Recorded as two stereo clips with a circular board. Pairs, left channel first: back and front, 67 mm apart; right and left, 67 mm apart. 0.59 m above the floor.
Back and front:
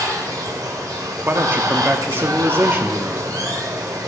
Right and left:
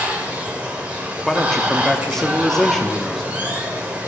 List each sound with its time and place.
0.0 s running water: 20° left, 1.3 m
1.3 s a man speaking: 10° right, 0.7 m